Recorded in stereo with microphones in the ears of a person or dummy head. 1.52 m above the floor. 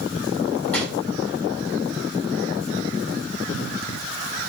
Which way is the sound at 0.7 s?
15° left (ahead or behind).